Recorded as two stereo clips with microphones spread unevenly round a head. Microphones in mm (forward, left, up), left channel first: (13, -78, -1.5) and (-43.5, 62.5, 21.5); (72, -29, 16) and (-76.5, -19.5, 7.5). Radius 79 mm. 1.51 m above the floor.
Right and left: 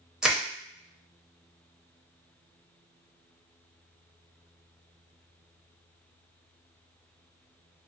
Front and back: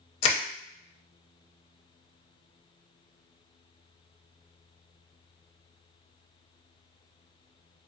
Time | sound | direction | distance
0.2 | crushing | 35° left | 0.5 m